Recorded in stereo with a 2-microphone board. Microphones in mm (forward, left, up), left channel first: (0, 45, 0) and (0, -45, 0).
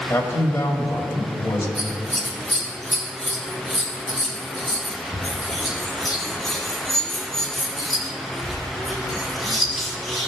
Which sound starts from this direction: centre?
Scissors, at 1.8 s.